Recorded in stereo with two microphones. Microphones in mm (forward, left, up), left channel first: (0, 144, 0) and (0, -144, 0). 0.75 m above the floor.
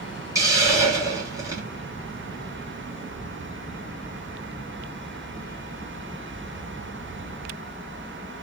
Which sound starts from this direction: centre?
A hiss, at 0.3 s.